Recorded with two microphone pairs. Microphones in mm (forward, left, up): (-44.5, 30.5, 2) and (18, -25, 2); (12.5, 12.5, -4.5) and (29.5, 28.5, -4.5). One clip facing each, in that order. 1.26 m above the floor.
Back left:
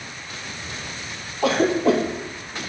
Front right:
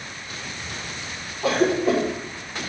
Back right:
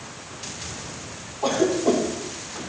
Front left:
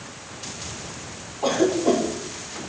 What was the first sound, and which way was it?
A cough, 125° left.